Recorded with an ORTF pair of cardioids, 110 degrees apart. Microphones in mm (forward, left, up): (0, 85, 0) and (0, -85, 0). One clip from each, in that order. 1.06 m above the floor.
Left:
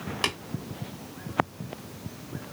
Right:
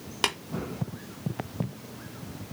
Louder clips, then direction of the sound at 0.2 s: Right 1 dB; 20° right.